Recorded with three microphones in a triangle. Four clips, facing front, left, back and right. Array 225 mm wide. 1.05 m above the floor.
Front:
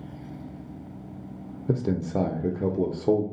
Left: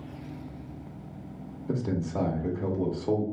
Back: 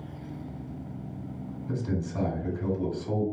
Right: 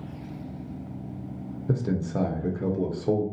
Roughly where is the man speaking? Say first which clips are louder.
Right 2 dB, front 6 dB; ahead.